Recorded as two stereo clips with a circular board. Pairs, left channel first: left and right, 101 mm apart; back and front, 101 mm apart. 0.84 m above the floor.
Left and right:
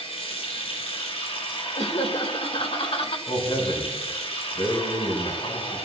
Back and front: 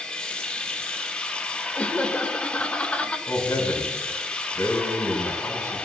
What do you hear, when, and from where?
0.0 s running water: 100° left, 4 m
1.8 s laughter: 100° left, 2.5 m
3.3 s a man speaking: 120° left, 6.5 m